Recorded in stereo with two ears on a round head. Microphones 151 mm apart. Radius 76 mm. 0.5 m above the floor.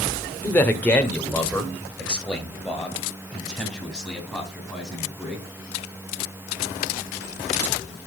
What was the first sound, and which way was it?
A man speaking, 10° left (ahead or behind).